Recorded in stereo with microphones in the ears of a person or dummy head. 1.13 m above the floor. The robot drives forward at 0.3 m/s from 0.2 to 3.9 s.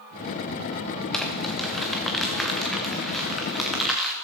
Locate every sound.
1.1 s crumpling: 5° left (ahead or behind), 1.4 m